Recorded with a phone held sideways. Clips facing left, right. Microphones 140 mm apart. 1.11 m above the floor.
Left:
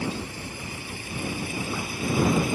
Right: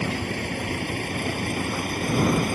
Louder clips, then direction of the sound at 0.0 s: Right 4 dB; 75° right (ahead or behind).